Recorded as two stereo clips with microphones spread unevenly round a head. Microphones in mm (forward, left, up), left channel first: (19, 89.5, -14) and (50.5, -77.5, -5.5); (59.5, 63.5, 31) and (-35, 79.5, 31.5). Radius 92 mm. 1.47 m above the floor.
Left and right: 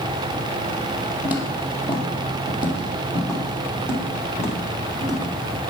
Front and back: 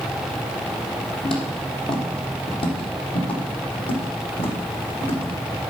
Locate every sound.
1.2 s footsteps: straight ahead, 2.5 m; by 5.4 s 5° left, 5.5 m